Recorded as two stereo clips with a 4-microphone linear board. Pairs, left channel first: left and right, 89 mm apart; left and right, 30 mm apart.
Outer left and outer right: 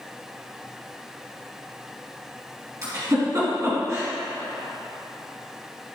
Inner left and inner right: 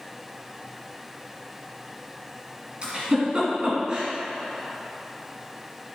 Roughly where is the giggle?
Right.